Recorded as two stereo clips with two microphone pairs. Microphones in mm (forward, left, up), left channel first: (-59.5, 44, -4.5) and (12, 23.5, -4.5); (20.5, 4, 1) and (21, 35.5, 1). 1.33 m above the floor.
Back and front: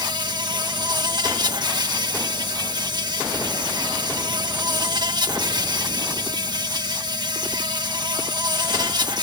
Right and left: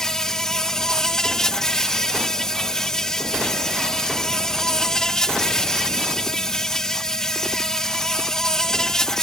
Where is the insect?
20° right.